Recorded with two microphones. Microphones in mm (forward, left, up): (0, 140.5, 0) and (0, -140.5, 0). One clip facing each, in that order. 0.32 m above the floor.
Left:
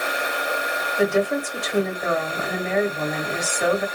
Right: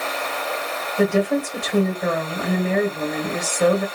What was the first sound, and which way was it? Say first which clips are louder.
A woman speaking: right 2 dB; 35° right (ahead or behind).